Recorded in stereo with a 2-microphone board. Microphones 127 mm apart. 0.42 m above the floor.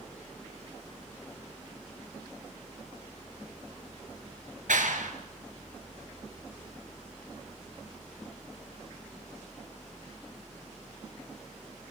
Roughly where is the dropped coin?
No dropped coin in this recording.